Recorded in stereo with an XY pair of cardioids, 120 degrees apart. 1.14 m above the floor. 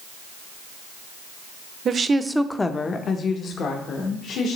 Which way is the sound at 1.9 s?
40° right.